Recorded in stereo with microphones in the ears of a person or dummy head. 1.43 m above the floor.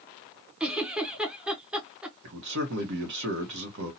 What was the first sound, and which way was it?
A giggle, 5° right (ahead or behind).